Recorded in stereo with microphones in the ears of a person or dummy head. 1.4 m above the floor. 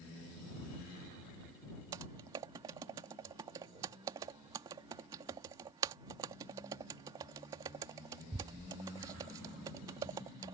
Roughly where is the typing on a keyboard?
Centre.